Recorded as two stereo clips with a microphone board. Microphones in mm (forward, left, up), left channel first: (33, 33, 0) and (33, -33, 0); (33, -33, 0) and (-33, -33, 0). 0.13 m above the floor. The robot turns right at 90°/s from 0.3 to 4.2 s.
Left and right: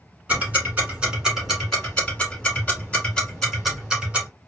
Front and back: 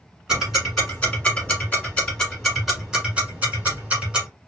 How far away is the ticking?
About 1.3 m.